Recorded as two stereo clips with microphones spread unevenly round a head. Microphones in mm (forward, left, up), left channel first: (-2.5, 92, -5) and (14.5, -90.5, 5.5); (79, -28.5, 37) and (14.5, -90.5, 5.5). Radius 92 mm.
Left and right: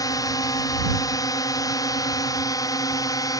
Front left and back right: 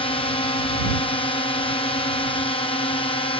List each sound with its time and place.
0.0 s a drone: 35° left